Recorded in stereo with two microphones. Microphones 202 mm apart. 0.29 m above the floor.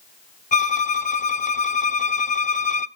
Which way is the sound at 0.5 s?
40° left (ahead or behind).